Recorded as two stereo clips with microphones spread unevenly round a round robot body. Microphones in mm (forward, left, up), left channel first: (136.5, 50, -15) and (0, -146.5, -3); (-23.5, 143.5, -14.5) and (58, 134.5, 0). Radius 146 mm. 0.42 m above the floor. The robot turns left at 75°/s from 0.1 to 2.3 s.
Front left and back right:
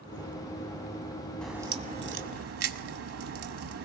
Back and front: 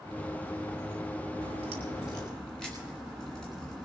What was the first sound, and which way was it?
A crack, 30° right.